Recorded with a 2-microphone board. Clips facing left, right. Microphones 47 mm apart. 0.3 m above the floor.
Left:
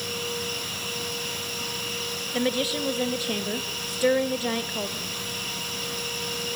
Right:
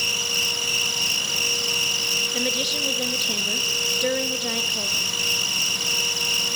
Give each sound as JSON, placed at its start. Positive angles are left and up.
{"t": 0.0, "sound": "an insect", "side_deg": -75, "distance_m": 2.5}
{"t": 2.3, "sound": "a woman speaking", "side_deg": 15, "distance_m": 1.4}